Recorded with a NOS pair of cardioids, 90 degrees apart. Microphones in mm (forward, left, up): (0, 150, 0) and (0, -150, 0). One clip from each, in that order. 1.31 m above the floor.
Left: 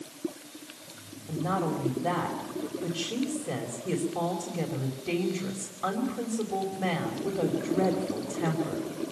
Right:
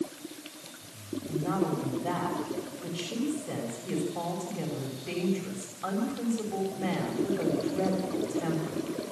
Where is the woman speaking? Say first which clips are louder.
Left 1 dB; 35° left, 5.5 m.